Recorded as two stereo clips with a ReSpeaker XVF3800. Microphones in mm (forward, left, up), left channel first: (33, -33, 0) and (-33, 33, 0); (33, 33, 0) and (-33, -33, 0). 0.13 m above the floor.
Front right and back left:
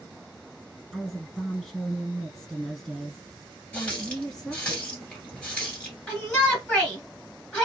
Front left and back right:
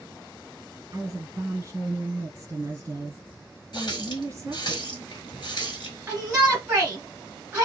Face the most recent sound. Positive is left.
turn(degrees=-100)